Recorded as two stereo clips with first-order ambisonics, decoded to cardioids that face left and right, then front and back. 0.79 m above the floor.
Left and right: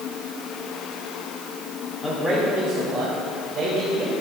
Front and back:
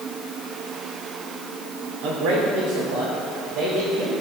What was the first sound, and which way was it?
A man speaking, 170° left.